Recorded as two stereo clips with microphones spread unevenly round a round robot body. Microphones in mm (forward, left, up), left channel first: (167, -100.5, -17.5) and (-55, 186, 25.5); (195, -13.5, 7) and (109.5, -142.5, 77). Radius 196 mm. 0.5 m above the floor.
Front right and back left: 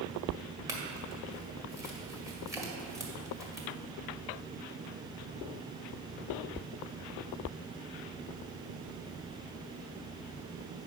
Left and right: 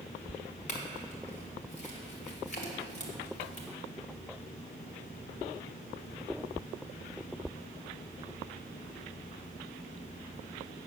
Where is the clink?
45° left, 1.8 m.